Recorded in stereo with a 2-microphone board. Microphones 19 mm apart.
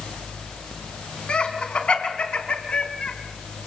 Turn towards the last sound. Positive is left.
turn(degrees=70)  # may be behind; listen again after turning